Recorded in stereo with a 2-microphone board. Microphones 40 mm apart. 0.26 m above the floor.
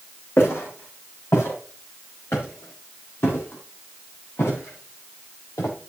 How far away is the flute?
I don't hear a flute.